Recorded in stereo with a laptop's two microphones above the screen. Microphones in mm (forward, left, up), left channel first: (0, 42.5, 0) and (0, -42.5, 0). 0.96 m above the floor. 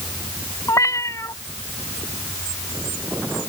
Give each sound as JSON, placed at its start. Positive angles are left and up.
{"t": 0.7, "sound": "a cat meowing", "side_deg": 40}